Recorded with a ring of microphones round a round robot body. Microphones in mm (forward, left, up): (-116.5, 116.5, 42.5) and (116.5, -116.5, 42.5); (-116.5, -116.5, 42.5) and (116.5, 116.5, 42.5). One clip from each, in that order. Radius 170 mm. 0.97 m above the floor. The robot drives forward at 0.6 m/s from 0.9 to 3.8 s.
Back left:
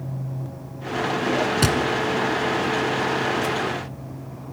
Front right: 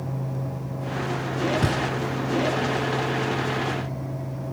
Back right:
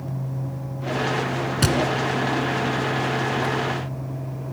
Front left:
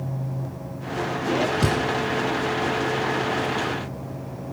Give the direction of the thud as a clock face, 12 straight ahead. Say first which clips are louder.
Back left 4 dB, back right 1 dB; 6 o'clock.